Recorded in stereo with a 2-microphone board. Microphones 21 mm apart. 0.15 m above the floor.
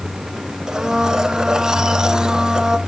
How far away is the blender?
About 1.0 m.